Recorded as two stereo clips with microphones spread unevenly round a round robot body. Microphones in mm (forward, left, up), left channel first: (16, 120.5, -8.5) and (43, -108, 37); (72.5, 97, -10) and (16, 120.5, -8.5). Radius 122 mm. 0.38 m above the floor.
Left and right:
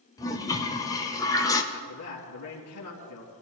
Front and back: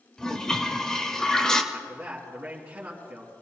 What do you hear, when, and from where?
0.2 s a toilet flushing: 50° left, 1.4 m
1.7 s a man speaking: 95° left, 3.5 m